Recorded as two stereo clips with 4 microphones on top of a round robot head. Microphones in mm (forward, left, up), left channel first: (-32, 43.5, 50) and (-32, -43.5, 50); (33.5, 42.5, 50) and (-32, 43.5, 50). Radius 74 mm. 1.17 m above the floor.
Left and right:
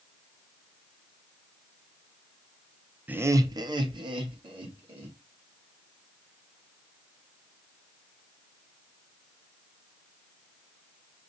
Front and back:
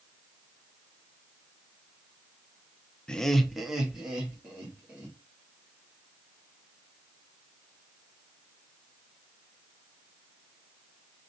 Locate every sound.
3.1 s laughter: 55° right, 0.6 m; by 5.2 s 105° right, 2 m